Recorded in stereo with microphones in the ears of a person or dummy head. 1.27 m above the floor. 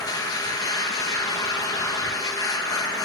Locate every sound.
0.0 s a machine running: 20° left (ahead or behind), 1.2 m